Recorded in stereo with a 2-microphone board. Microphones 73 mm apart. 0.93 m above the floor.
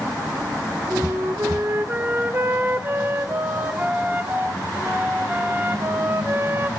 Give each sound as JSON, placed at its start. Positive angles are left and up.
{"t": 0.9, "sound": "a flute", "side_deg": -30, "distance_m": 0.6}